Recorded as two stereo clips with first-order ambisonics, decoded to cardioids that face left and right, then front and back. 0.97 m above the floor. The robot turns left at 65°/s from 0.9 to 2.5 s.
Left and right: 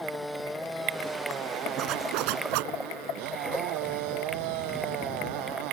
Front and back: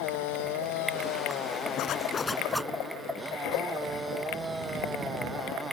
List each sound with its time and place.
0.0 s a motorcycle: straight ahead; by 5.7 s 100° right
1.8 s a zipper: 40° right; by 2.7 s 90° right